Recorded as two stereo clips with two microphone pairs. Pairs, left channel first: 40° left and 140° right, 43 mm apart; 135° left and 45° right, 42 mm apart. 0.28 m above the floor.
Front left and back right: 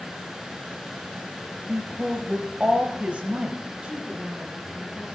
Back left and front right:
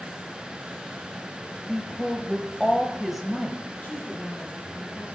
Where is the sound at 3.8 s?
165° left, 2 m.